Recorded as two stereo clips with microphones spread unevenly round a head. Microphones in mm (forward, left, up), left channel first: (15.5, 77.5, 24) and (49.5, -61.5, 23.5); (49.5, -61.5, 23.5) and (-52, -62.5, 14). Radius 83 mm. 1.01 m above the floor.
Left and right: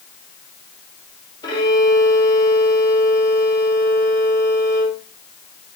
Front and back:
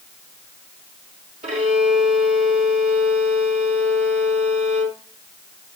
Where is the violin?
170° left, 3.5 m.